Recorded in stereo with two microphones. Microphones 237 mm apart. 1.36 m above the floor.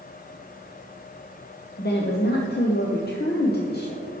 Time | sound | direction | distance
1.8 | a woman speaking | 45° left (ahead or behind) | 0.8 m